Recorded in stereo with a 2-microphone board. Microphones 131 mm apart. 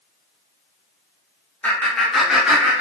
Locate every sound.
1.6 s laughter: 10° left (ahead or behind), 1.1 m; by 2.8 s 15° right (ahead or behind), 1.0 m